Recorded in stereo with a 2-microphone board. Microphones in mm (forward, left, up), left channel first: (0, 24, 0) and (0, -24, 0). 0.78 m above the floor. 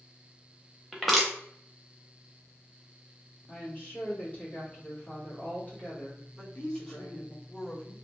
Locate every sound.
0.9 s crushing: centre (ahead or behind), 0.7 m
3.5 s a woman speaking: 30° left (ahead or behind), 1.7 m
6.3 s a woman speaking: 15° left (ahead or behind), 1.4 m